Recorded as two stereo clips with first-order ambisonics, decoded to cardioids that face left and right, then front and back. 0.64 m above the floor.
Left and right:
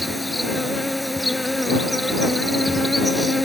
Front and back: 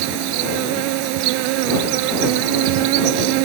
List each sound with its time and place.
0.0 s an insect: straight behind